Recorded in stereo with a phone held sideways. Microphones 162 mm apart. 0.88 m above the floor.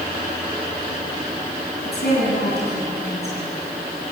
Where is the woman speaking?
80° left, 9 m.